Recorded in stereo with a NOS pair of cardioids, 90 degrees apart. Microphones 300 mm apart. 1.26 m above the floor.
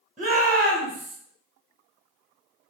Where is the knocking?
I don't hear knocking.